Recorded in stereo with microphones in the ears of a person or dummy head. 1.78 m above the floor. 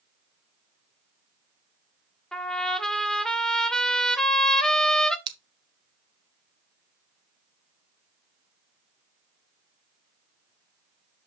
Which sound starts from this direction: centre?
A trumpet, at 2.3 s.